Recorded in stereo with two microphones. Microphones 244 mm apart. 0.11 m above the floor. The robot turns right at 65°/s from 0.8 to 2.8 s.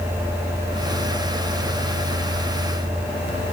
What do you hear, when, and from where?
Only background noise.